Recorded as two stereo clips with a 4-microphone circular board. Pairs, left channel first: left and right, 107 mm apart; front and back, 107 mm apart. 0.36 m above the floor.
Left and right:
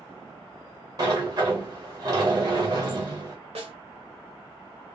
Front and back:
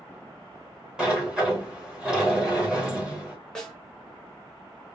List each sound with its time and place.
1.0 s a sliding door: 100° right, 1.3 m
3.5 s a snare drum: 80° right, 0.8 m